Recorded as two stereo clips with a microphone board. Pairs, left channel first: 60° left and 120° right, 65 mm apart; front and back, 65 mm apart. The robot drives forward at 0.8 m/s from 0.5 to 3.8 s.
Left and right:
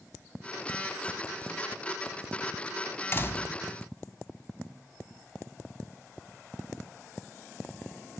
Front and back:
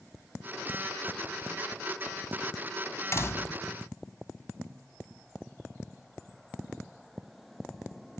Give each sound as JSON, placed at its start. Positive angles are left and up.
{"t": 3.1, "sound": "a door slam", "azimuth_deg": 20}